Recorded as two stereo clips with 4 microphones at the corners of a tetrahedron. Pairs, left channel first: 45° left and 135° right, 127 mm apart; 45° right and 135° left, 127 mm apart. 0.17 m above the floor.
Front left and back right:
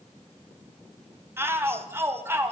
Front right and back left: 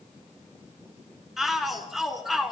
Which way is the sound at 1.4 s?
140° right.